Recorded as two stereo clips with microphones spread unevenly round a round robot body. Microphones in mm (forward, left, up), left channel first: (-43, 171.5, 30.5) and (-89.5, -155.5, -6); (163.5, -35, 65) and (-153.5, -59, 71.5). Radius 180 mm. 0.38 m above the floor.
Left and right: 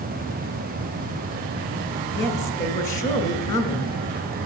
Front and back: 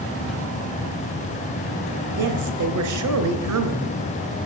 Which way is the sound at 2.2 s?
150° left.